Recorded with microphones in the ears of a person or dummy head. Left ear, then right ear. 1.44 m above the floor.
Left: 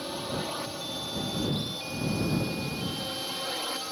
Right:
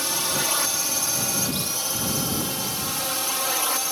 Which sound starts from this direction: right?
A drone, at 0.0 s.